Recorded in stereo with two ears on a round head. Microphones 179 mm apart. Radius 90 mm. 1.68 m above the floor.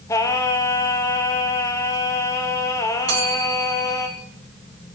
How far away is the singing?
About 1.1 m.